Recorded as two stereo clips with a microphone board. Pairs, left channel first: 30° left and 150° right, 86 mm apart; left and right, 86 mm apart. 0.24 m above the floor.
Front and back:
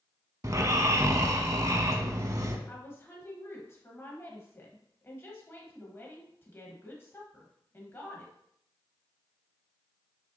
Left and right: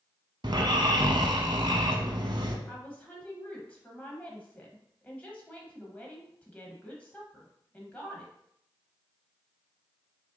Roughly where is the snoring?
Right.